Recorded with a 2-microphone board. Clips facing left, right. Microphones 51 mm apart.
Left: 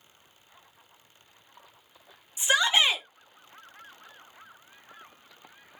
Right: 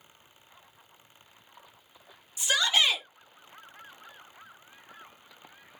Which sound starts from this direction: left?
A shout, at 2.4 s.